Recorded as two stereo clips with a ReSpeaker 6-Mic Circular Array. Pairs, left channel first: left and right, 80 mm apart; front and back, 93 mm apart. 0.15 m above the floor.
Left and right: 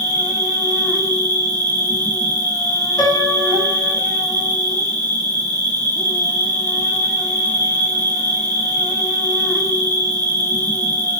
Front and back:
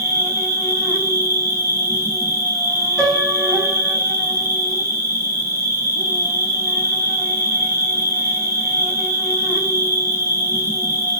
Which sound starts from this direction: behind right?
An insect, at 0.0 s.